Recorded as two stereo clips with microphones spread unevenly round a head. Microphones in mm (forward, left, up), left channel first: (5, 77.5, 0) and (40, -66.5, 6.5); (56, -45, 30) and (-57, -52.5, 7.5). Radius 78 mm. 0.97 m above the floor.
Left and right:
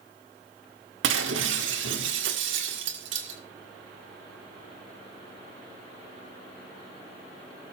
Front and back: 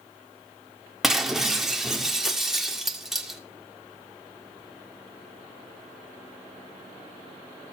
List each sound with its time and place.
1.0 s breaking glass: 90° right, 1.6 m